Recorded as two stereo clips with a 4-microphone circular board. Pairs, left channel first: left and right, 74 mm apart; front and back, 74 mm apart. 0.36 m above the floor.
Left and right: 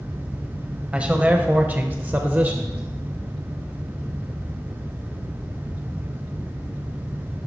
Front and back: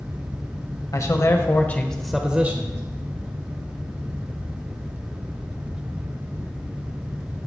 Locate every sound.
0.9 s a man speaking: 20° right, 1.4 m; by 2.8 s 150° right, 1.1 m